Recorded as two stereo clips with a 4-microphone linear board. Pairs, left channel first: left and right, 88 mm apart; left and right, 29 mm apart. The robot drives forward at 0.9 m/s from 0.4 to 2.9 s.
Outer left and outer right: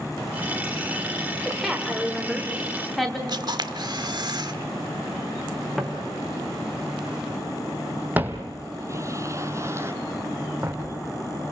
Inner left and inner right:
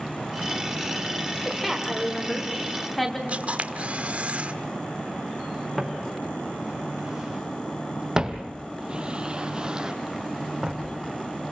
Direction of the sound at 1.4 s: Centre (ahead or behind).